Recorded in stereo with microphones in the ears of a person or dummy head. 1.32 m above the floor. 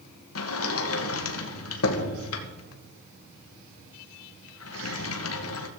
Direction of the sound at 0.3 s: 70° left (ahead or behind).